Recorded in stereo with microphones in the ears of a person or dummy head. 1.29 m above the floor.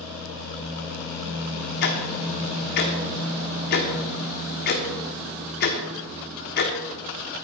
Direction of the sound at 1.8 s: 45° left (ahead or behind).